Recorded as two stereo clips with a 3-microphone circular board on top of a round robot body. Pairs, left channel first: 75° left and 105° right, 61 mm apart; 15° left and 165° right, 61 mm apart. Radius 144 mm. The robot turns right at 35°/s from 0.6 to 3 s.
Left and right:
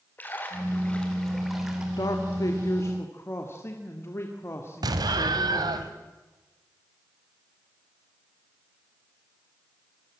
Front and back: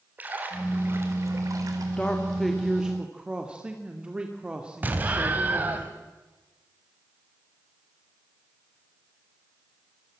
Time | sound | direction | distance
0.2 | a splash | 135° left | 4 m
2.0 | a man speaking | 85° left | 2.5 m
4.8 | an explosion | 100° right | 1.5 m